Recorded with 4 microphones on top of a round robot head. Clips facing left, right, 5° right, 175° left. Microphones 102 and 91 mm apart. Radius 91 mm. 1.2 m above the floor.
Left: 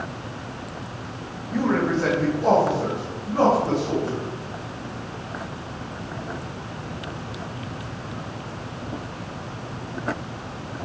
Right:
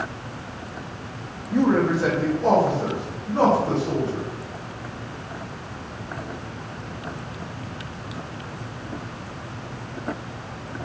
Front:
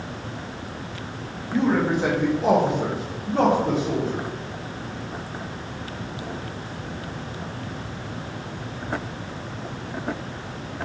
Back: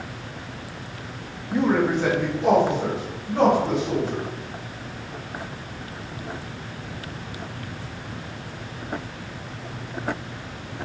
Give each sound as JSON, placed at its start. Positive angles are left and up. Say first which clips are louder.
{"t": 1.5, "sound": "a man speaking", "louder": "right 3 dB, even", "azimuth_deg": -120, "distance_m": 0.6}